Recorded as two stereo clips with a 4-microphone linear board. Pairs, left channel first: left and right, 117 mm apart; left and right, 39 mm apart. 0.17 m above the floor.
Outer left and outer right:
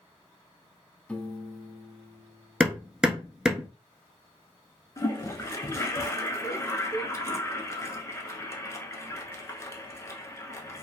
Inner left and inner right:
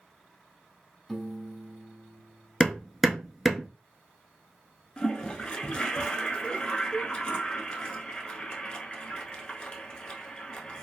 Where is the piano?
10° left (ahead or behind), 0.6 m.